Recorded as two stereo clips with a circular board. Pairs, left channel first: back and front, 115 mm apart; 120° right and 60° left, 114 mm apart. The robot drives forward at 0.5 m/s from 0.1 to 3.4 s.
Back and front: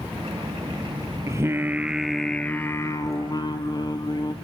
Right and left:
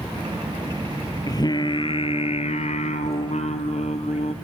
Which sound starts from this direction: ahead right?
Singing, at 1.3 s.